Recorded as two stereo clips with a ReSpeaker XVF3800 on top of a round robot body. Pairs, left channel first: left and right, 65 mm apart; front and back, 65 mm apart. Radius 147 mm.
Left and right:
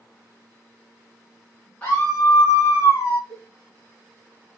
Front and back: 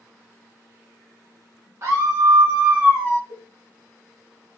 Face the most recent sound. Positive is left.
turn(degrees=-145)